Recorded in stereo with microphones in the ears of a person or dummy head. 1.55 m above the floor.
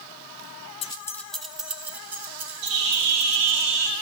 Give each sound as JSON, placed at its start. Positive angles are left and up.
{"t": 0.8, "sound": "keys jangling", "side_deg": 30, "distance_m": 0.6}
{"t": 2.6, "sound": "a bird", "side_deg": -60, "distance_m": 1.2}